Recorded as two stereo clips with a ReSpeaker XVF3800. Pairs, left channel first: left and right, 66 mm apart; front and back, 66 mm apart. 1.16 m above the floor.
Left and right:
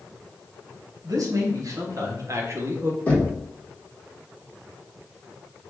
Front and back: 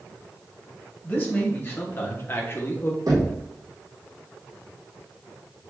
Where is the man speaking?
60° right, 1.5 m; by 3.0 s 40° right, 0.8 m.